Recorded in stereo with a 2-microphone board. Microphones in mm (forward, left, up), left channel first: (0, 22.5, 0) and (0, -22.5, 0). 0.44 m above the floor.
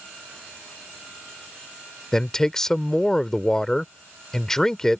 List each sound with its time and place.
2.1 s a man speaking: 10° left (ahead or behind)